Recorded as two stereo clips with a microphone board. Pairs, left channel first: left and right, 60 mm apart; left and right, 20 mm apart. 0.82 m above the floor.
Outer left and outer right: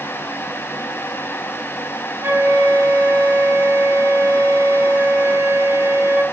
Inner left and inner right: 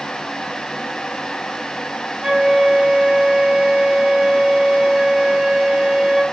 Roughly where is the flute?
Right.